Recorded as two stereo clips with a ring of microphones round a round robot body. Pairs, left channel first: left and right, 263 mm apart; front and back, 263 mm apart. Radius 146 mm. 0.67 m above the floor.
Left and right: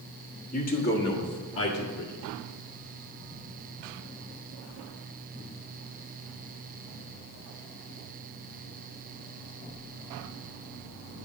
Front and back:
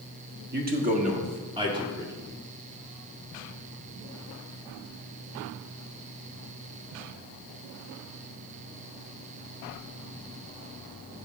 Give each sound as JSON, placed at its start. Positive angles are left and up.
{"t": 0.5, "sound": "a man speaking", "azimuth_deg": 145, "distance_m": 1.5}